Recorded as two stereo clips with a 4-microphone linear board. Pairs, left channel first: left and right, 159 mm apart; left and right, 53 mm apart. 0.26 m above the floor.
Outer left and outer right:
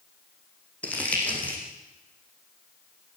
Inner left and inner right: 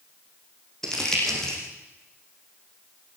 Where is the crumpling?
10° left (ahead or behind), 6 m.